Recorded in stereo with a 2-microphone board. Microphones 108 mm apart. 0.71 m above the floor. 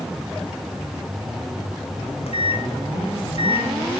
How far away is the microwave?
About 1.9 m.